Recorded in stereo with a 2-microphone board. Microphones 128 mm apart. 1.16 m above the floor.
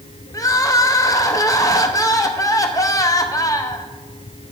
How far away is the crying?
About 0.7 m.